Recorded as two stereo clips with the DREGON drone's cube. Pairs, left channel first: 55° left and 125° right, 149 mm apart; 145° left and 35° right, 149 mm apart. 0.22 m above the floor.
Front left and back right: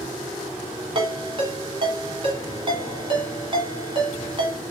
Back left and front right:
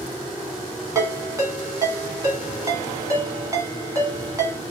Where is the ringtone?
90° right, 1.1 m.